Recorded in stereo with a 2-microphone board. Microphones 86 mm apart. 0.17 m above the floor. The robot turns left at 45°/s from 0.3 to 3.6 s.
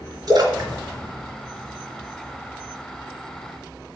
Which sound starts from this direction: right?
A splash, at 0.3 s.